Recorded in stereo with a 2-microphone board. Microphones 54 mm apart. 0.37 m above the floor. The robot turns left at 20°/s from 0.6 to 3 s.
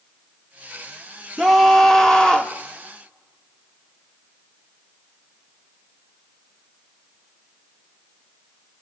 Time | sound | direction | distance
1.4 | a scream | centre (ahead or behind) | 1.1 m